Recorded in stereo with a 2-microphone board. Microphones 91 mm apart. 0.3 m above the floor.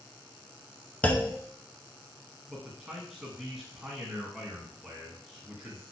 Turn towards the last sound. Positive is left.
turn(degrees=-5)  # may be behind; listen again after turning